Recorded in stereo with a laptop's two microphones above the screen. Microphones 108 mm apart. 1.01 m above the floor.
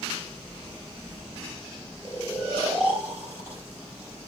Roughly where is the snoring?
Left.